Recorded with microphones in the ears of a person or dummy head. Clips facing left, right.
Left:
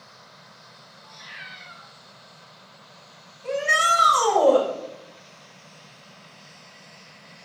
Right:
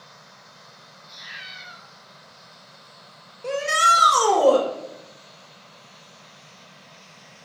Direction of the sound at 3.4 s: 85° right.